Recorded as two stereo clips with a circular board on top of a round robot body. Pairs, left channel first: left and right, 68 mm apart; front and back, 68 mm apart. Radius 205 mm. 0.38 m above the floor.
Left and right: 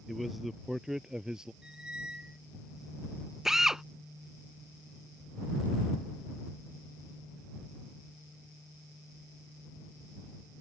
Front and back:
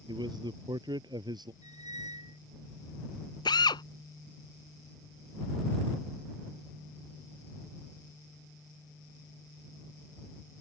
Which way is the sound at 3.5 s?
10° right.